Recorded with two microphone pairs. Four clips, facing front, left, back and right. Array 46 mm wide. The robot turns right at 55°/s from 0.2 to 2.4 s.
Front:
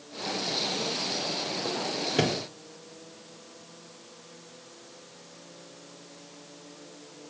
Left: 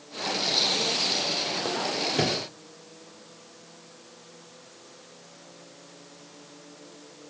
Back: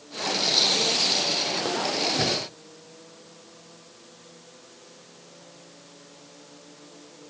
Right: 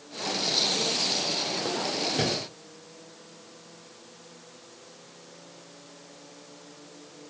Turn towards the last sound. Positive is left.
turn(degrees=20)